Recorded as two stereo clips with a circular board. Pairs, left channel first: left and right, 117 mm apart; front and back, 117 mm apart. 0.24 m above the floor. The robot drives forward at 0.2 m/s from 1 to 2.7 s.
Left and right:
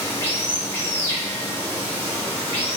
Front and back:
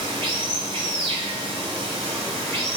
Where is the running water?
155° left, 0.9 m; by 2.8 s 165° left, 1.2 m.